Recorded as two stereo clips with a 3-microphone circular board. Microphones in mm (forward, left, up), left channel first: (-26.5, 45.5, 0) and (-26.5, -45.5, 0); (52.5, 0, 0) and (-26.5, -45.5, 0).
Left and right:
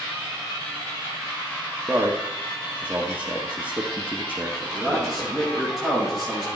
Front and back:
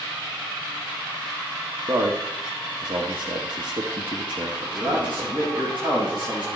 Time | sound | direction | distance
1.9 | a man speaking | 160° right | 1.2 m
4.7 | a man speaking | straight behind | 5 m